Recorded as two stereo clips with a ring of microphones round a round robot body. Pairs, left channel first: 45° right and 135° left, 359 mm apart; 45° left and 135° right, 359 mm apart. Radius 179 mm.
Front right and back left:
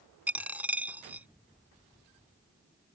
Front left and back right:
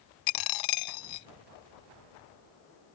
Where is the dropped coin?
50° left.